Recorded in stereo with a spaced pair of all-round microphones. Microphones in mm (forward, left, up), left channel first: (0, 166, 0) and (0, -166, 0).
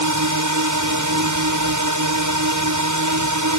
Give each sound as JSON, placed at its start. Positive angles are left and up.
{"t": 0.0, "sound": "a drone", "side_deg": -60}